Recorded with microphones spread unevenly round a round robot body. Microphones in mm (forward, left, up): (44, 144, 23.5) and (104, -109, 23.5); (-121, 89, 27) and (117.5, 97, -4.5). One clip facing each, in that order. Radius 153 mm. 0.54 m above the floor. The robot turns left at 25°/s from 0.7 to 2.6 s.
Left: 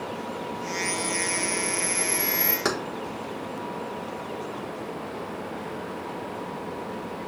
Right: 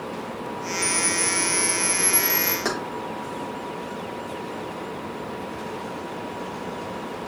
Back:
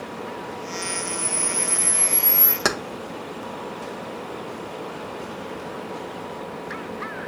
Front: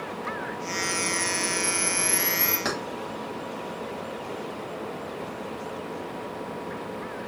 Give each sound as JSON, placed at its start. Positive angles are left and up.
{"t": 0.8, "sound": "a camera shutter", "azimuth_deg": -125, "distance_m": 0.7}
{"t": 2.6, "sound": "keys jangling", "azimuth_deg": 175, "distance_m": 0.6}